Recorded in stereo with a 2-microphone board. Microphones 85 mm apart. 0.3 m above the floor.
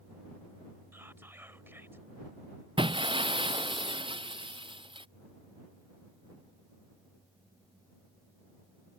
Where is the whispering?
25° right (ahead or behind).